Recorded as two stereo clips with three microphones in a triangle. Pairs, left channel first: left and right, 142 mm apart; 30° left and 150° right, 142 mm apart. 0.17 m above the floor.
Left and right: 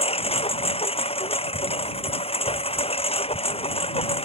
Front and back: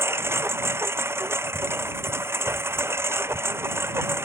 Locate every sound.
0.0 s a lawn mower: 135° left